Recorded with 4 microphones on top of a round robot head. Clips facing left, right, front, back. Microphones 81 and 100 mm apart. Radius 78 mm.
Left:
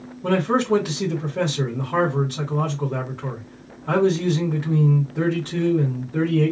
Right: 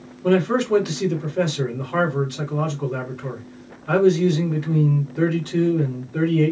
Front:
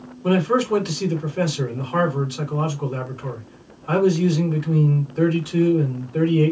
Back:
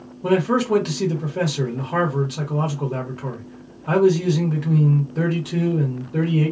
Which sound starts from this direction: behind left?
A man speaking, at 0.2 s.